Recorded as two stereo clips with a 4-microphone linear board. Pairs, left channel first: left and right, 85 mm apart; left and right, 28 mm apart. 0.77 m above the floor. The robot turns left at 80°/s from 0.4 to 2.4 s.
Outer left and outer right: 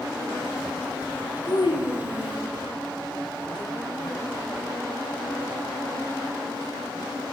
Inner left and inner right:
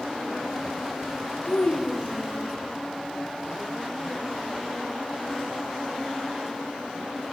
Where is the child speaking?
130° left, 1.5 m; by 2.5 s 50° left, 1.5 m.